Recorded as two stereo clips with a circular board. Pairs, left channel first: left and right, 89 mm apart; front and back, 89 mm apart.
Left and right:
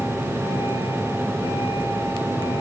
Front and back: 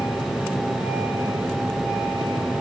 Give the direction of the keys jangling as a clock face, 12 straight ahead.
No keys jangling in this recording.